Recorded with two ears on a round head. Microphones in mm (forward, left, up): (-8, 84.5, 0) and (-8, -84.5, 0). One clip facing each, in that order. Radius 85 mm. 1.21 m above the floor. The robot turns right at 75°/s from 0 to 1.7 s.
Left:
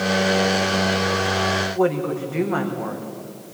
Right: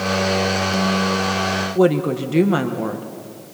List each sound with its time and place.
1.8 s a woman speaking: 45° right (ahead or behind), 1.2 m